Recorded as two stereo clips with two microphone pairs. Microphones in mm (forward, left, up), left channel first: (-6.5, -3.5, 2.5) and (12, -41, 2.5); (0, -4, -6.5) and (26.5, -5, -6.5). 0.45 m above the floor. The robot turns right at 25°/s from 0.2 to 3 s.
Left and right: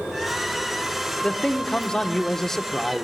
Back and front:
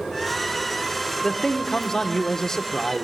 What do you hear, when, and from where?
1.2 s a man speaking: 145° left, 0.7 m; by 3.0 s 170° right, 0.7 m